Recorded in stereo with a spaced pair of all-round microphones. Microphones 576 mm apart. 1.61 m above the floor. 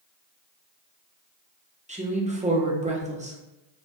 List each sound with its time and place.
1.9 s a woman speaking: 15° right (ahead or behind), 0.5 m